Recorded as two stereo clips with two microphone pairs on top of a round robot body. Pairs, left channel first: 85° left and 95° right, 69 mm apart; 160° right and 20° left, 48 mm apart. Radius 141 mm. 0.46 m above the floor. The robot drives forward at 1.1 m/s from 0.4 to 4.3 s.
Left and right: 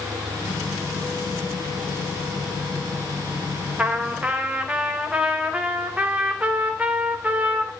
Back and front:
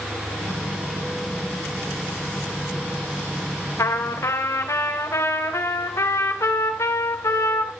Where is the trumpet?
165° right, 3 m; by 7.7 s 170° right, 3.5 m.